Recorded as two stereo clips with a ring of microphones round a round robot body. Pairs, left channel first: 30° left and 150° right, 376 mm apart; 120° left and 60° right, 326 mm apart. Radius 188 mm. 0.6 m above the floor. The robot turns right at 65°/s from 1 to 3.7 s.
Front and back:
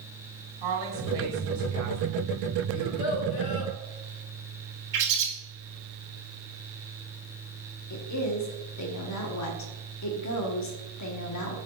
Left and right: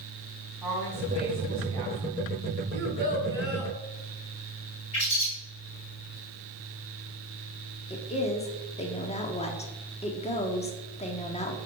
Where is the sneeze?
No sneeze in this recording.